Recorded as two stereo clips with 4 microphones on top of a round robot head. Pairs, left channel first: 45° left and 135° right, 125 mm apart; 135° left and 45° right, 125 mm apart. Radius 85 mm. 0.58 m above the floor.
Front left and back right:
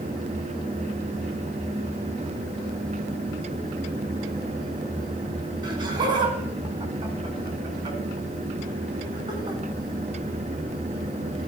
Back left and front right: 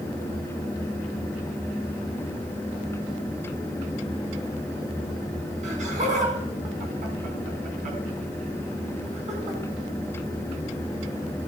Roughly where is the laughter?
Right.